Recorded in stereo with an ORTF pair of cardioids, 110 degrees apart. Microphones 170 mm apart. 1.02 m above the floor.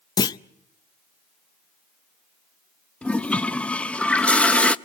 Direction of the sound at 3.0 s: 5° left.